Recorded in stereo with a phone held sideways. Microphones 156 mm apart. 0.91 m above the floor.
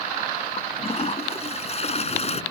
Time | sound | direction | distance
0.6 | a toilet flushing | 40° left (ahead or behind) | ?